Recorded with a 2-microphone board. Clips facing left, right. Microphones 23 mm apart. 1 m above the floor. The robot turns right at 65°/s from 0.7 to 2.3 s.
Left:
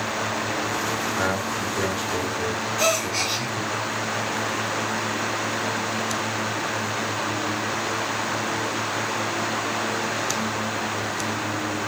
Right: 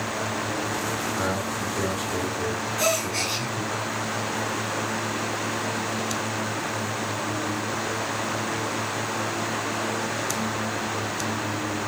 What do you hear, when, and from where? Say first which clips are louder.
1.2 s a man speaking: left 2 dB; 80° left, 3.5 m; by 3.8 s 20° left (ahead or behind), 3.5 m
2.8 s a gasp: left 2 dB; 20° left (ahead or behind), 3.5 m